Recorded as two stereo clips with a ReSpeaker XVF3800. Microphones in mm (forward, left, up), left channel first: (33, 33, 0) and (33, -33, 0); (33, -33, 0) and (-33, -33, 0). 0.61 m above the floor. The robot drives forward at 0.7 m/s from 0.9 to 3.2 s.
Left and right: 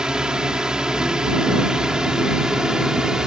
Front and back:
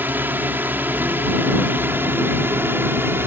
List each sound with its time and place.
0.0 s a drone: 160° right